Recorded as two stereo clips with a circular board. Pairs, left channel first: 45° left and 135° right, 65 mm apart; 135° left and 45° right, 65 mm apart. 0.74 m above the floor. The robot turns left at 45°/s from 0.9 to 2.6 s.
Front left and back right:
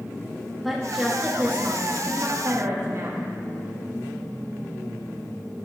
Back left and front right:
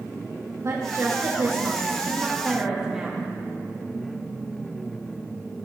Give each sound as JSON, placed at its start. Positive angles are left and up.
{"t": 0.6, "sound": "a woman speaking", "azimuth_deg": -45, "distance_m": 1.1}